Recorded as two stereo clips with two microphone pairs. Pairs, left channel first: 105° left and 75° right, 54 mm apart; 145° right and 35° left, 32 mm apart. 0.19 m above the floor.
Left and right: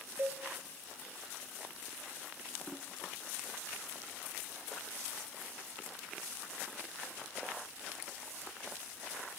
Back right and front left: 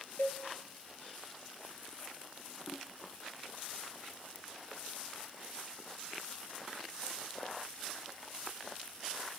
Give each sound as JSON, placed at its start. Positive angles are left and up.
{"t": 0.2, "sound": "a cowbell", "azimuth_deg": -125, "distance_m": 0.6}